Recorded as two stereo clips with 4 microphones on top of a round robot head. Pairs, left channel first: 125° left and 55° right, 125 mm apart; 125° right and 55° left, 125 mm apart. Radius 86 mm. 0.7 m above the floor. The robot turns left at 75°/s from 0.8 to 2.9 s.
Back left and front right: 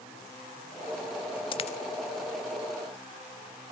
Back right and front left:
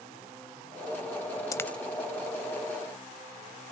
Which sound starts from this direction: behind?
A dropped coin, at 1.5 s.